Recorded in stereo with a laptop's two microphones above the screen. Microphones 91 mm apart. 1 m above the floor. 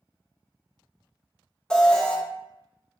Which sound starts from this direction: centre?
An alarm, at 1.7 s.